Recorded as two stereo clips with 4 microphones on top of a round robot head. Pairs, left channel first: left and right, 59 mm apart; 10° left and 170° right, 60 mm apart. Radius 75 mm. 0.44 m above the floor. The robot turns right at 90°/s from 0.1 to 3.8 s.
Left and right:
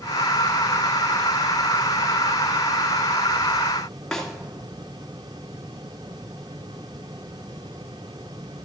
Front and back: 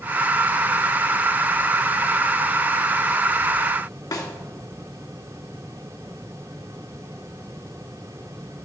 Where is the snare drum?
10° left, 2.5 m.